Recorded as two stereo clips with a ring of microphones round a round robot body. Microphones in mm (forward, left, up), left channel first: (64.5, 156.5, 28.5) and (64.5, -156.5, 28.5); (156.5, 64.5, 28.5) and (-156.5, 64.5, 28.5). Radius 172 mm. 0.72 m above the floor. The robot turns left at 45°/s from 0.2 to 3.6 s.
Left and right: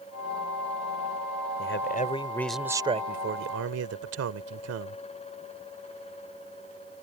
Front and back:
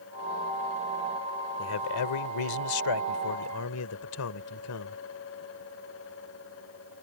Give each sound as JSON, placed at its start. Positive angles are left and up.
{"t": 1.6, "sound": "a man speaking", "azimuth_deg": 45}